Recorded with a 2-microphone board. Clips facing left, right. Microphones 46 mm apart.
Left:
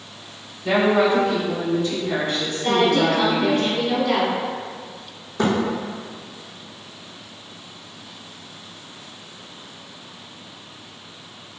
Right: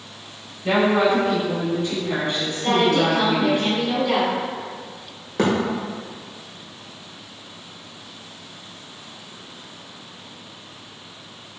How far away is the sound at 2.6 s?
About 1.2 m.